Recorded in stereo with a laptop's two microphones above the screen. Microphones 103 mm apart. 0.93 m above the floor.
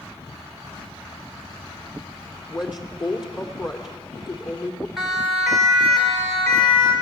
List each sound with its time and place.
2.5 s a woman speaking: 45° left (ahead or behind), 3 m
5.0 s a siren: 5° right (ahead or behind), 4.5 m; by 6.9 s 10° left (ahead or behind), 5 m